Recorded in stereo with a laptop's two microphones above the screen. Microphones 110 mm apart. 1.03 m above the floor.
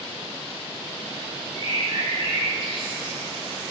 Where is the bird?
55° right (ahead or behind), 2.5 m.